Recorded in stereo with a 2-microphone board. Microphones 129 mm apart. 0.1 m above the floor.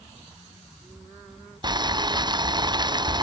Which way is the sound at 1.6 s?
35° right (ahead or behind).